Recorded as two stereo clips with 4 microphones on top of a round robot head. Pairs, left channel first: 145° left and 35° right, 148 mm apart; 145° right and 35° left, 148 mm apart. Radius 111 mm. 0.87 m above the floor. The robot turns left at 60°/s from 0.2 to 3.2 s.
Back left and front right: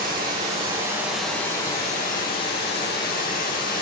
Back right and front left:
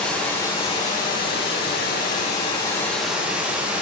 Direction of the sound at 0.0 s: 65° right.